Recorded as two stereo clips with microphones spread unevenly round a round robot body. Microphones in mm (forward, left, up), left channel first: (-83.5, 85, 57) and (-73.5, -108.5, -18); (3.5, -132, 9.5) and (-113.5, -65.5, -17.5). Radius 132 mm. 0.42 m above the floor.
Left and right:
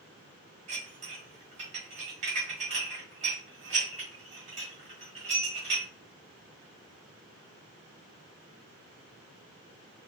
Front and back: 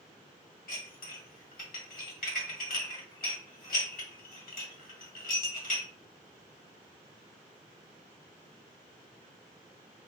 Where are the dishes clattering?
45° right, 1.2 m.